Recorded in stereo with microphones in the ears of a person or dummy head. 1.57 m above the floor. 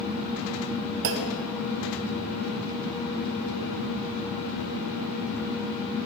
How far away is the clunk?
About 0.6 m.